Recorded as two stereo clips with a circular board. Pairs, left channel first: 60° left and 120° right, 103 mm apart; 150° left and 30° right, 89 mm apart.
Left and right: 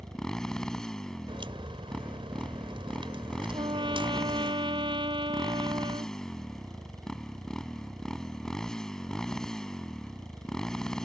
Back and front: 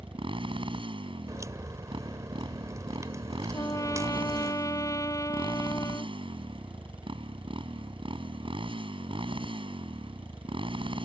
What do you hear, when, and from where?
0.0 s a motorcycle: 25° right
1.3 s a crack: 85° right
3.5 s a trumpet: 160° right